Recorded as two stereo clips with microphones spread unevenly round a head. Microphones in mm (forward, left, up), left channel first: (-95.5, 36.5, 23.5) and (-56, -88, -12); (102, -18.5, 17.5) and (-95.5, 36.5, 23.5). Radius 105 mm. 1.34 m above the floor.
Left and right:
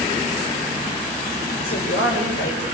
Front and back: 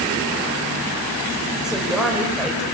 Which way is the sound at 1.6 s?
75° left.